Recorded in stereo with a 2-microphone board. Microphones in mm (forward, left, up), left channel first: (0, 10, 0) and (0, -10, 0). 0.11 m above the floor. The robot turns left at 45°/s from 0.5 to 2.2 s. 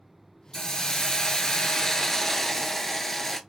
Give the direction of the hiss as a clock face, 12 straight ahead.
8 o'clock.